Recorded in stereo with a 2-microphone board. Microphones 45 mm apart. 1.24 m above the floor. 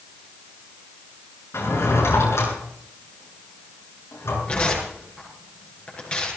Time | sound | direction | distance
1.5 | a drawer | 75° left (ahead or behind) | 8 m
4.5 | tearing paper | 25° left (ahead or behind) | 6.5 m